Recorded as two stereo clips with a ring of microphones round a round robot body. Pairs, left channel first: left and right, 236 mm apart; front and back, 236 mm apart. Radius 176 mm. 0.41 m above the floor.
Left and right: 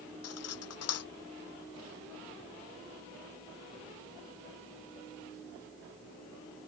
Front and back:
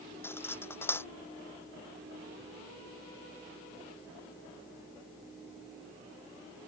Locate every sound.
0.2 s cutlery clinking: 80° left